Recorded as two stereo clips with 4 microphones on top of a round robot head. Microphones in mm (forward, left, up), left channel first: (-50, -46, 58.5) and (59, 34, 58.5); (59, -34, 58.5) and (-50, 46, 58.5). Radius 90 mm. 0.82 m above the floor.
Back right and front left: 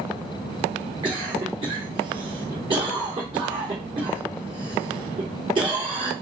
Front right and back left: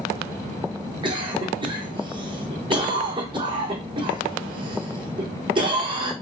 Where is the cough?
90° left, 2.5 m.